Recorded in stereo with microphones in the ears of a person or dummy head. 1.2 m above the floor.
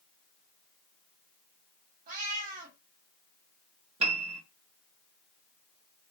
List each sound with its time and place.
2.1 s a cat meowing: 50° right (ahead or behind), 1.6 m
4.0 s a piano: 40° right (ahead or behind), 1.3 m